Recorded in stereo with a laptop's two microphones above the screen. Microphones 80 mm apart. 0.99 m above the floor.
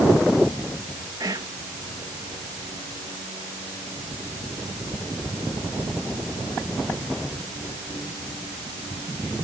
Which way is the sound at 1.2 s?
50° right (ahead or behind).